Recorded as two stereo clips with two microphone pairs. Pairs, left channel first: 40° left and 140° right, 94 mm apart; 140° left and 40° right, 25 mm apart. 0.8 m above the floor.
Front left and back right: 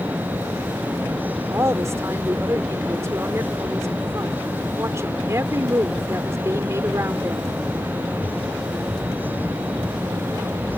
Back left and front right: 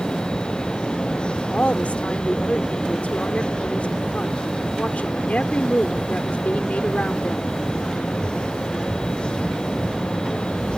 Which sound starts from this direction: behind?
A woman speaking, at 1.5 s.